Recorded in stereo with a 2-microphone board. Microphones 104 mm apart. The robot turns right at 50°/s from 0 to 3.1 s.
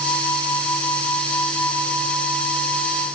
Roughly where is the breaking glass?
No breaking glass in this recording.